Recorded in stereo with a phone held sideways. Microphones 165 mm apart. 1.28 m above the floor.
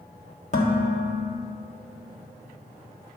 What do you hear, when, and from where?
0.5 s dishes clattering: 45° left (ahead or behind), 1.7 m